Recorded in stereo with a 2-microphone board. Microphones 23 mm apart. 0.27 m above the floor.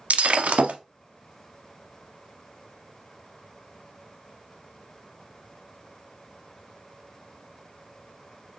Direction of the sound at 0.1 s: 80° right.